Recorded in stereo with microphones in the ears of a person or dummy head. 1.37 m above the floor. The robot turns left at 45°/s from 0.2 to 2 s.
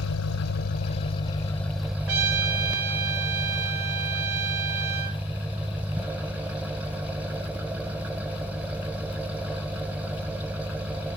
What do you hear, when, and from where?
0.0 s an engine running: 75° left, 0.8 m; by 11.2 s 10° right, 0.8 m
2.1 s a trumpet: 85° right, 4.5 m